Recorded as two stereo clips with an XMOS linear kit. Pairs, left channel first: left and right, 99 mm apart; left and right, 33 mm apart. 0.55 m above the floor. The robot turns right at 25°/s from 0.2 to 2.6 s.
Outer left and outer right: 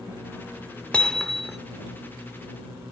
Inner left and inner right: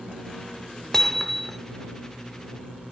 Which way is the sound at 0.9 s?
10° left (ahead or behind).